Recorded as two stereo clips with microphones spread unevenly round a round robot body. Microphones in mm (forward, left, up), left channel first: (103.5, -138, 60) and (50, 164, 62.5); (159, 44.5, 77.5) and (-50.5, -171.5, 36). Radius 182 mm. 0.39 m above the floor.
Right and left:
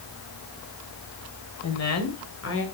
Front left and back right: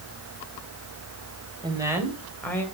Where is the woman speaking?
65° right, 2.5 m; by 2.6 s 40° right, 2.5 m.